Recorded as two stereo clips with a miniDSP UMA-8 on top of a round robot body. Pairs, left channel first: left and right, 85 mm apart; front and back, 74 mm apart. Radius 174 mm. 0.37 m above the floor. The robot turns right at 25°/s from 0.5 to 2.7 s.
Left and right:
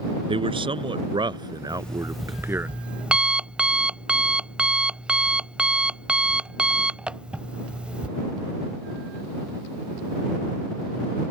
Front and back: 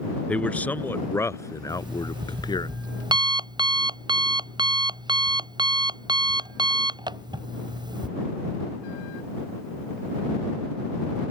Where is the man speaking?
75° right; by 2.7 s 20° right.